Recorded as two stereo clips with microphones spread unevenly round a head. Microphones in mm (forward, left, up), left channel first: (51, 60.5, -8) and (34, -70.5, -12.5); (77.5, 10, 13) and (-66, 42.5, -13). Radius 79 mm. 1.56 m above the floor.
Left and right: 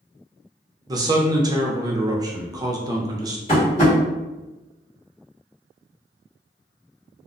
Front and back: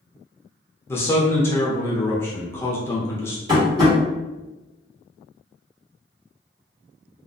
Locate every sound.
0.9 s a man speaking: 55° right, 0.5 m
3.5 s tapping: 105° left, 1.5 m